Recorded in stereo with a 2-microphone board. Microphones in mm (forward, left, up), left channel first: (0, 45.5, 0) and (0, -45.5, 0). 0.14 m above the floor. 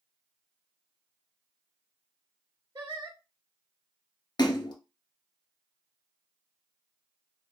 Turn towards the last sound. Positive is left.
turn(degrees=55)  # may be behind; listen again after turning